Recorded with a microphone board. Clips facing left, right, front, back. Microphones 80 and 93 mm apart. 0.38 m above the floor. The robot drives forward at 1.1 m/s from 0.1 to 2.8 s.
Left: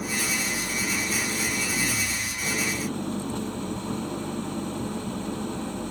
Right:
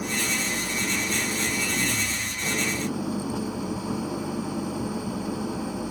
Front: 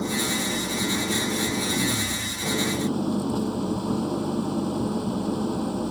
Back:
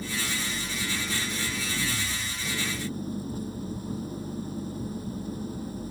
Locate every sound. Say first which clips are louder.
0.0 s an engine running: right 1 dB, front 7 dB; 5° right